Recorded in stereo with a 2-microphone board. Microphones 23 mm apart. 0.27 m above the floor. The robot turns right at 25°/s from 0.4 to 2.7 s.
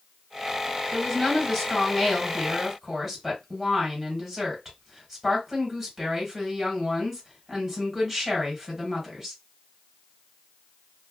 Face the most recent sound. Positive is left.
turn(degrees=-155)